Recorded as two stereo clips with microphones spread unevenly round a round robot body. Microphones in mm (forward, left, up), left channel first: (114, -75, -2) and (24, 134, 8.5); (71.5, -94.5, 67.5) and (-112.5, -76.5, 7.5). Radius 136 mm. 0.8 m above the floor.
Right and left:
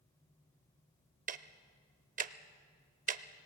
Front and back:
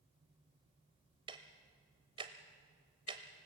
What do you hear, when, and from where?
1.3 s ticking: 90° left, 0.6 m